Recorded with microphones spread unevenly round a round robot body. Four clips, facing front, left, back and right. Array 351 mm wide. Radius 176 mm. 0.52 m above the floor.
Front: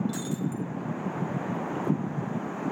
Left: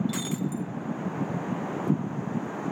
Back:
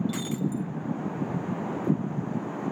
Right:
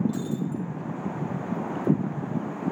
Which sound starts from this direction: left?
Breaking glass, at 0.1 s.